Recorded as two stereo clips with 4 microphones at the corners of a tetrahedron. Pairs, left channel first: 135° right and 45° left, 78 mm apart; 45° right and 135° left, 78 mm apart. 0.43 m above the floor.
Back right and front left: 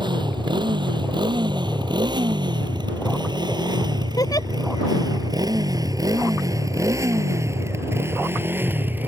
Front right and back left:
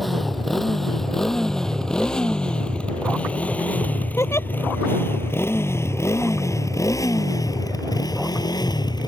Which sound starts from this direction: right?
A giggle, at 4.2 s.